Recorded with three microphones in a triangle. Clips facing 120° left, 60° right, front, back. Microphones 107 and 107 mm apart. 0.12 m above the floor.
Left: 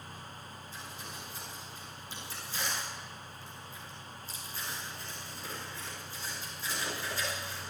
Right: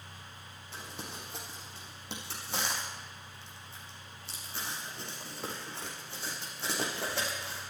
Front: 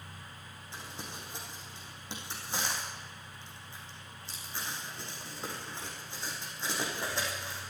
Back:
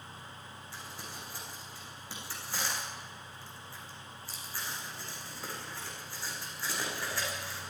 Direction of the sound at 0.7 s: 70° right.